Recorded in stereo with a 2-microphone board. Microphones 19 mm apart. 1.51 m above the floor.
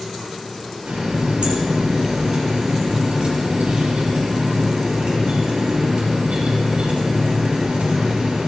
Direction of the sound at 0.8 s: 75° right (ahead or behind).